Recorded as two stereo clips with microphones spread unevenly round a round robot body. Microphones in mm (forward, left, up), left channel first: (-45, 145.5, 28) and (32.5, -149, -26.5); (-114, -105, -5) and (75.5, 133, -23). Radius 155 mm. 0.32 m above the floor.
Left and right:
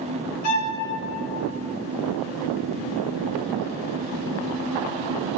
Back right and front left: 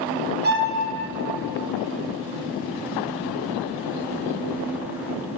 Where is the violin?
90° left, 1.6 m.